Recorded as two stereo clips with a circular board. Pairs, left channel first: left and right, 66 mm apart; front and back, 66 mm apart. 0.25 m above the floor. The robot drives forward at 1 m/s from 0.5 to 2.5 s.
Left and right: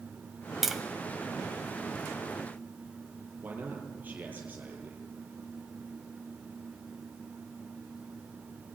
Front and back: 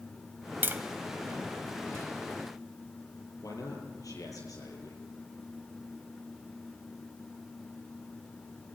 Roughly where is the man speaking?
Ahead right.